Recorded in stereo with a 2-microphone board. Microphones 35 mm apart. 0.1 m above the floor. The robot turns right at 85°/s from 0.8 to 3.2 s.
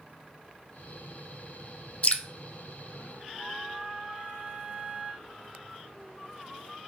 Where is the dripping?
40° left (ahead or behind), 0.5 m; by 2.2 s 25° left (ahead or behind), 0.5 m.